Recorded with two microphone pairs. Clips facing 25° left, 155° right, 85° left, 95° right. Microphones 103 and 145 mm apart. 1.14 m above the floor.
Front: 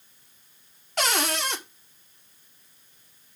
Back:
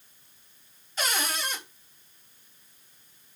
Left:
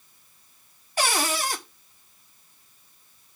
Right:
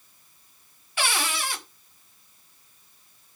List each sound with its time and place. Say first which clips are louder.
1.0 s a cupboard door: front 5 dB, left 3 dB; 35° left, 1.4 m